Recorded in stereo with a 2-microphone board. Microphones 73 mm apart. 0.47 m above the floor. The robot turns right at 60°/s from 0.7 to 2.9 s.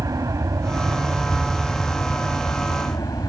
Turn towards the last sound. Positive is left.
turn(degrees=70)